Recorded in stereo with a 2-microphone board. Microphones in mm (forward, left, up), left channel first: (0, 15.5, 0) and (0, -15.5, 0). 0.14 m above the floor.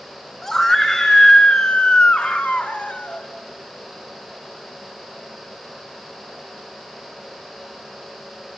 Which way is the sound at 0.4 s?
15° left (ahead or behind).